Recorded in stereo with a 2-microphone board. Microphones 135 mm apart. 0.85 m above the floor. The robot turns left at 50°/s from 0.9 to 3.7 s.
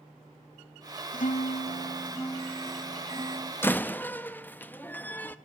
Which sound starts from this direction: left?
A guitar, at 1.1 s.